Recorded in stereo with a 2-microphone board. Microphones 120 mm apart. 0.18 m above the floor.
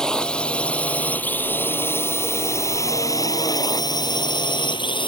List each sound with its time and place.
0.0 s a drone: 5° left (ahead or behind); by 5.1 s 45° left (ahead or behind)